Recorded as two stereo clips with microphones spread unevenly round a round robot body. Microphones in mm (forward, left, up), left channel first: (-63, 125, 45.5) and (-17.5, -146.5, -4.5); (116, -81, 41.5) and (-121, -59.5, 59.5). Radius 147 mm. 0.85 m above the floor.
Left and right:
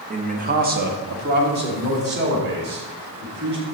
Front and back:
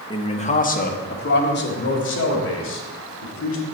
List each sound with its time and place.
0.1 s a man speaking: 60° right, 1.1 m; by 3.6 s 30° right, 3.5 m